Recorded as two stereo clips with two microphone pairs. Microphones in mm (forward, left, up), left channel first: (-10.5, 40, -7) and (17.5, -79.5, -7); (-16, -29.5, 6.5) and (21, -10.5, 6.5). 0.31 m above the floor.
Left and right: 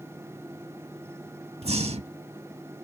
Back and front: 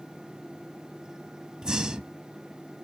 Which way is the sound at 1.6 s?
50° right.